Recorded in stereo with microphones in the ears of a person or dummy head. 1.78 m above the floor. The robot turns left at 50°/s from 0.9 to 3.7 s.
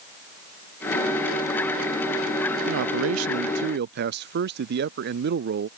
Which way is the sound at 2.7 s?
75° right.